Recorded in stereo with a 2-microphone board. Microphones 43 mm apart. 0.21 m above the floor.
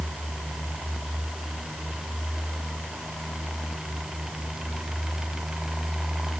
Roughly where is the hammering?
I don't hear hammering.